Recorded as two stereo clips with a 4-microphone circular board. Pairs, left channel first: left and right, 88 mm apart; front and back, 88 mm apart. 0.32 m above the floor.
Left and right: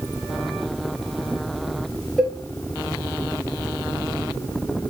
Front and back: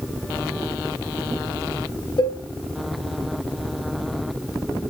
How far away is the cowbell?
About 1.0 m.